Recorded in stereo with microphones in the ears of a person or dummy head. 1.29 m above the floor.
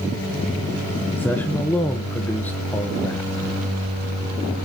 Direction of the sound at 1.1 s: 5° left (ahead or behind).